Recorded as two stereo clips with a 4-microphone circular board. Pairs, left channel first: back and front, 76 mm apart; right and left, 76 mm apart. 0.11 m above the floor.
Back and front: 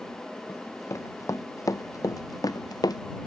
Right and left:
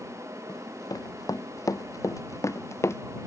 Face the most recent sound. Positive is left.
turn(degrees=-145)